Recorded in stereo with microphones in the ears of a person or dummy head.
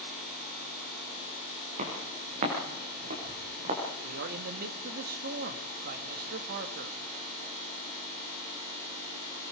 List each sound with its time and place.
1.8 s footsteps: 50° right (ahead or behind), 8 m; by 3.8 s 40° right (ahead or behind), 7 m
4.0 s a man speaking: 55° right (ahead or behind), 1.6 m